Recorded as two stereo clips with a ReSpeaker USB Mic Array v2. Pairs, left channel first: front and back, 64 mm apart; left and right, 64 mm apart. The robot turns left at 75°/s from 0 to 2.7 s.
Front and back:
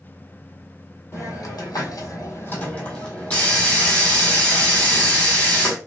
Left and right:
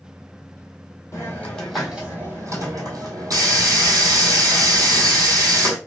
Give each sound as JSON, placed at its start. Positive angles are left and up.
{"t": 1.1, "sound": "a hiss", "azimuth_deg": 45, "distance_m": 1.1}